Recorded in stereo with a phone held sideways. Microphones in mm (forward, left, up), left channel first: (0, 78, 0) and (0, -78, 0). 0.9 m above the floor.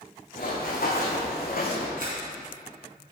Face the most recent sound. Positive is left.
turn(degrees=-70)  # may be behind; listen again after turning